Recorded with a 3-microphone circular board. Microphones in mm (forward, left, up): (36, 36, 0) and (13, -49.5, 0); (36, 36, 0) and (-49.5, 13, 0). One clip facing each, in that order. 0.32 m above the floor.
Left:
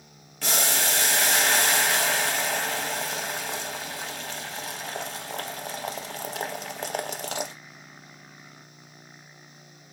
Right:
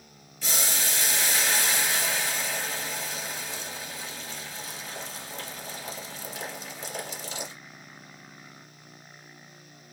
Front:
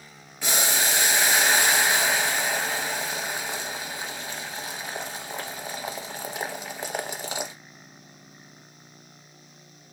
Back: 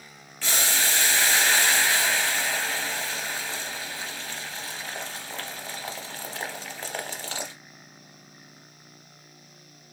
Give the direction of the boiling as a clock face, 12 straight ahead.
9 o'clock.